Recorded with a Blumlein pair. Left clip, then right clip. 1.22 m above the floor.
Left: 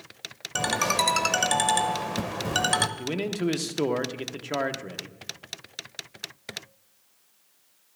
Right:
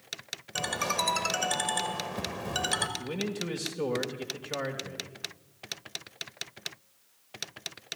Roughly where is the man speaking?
Ahead left.